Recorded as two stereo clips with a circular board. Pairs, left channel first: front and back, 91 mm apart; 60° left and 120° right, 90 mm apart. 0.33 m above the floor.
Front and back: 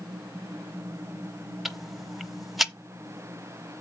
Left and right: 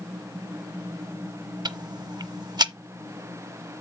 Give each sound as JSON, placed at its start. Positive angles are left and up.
{"t": 1.6, "sound": "ticking", "azimuth_deg": -90, "distance_m": 0.8}